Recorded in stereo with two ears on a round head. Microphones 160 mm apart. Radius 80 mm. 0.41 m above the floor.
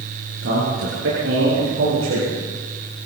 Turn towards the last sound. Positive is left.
turn(degrees=-80)